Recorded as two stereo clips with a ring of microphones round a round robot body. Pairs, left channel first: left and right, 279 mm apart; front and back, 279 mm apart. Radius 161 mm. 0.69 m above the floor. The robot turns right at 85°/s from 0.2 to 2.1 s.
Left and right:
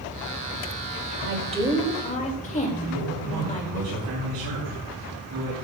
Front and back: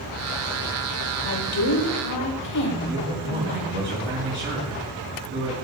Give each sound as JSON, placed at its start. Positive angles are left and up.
{"t": 1.2, "sound": "a woman speaking", "azimuth_deg": -50, "distance_m": 3.5}
{"t": 2.8, "sound": "a man speaking", "azimuth_deg": -110, "distance_m": 4.5}